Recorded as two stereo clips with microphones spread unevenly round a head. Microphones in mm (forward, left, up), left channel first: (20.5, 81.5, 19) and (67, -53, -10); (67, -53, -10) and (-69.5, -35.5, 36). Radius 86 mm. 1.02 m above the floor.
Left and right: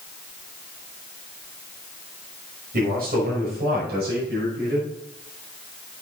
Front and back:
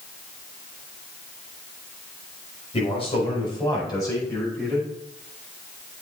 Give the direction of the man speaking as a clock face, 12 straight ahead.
2 o'clock.